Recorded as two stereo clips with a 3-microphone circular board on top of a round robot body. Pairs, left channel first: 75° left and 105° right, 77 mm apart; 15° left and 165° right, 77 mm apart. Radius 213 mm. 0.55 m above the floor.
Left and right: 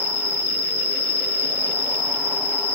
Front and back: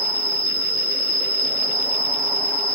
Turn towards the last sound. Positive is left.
turn(degrees=150)